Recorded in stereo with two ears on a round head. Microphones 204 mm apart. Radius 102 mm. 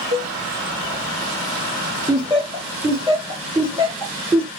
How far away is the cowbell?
About 1.2 m.